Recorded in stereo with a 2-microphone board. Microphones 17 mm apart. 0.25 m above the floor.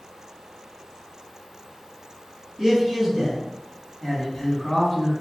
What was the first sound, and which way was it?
A man speaking, 35° right (ahead or behind).